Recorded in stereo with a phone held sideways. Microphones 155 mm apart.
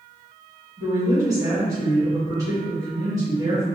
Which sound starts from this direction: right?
A woman speaking, at 0.8 s.